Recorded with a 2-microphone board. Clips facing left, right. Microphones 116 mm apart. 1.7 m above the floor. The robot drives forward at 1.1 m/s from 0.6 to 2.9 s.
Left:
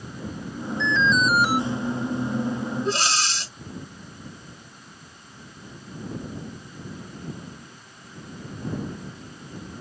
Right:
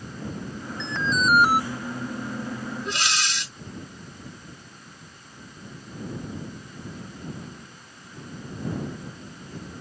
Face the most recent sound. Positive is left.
turn(degrees=35)  # may be behind; listen again after turning